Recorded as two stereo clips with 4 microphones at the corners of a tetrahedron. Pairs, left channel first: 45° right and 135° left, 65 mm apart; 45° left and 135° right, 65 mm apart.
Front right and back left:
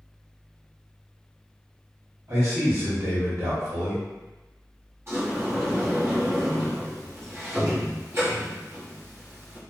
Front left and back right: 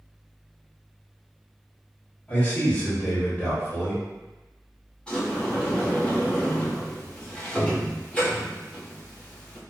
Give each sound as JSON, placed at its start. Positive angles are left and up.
{"t": 2.3, "sound": "a man speaking", "azimuth_deg": 105, "distance_m": 1.7}
{"t": 5.1, "sound": "a sliding door", "azimuth_deg": 115, "distance_m": 1.1}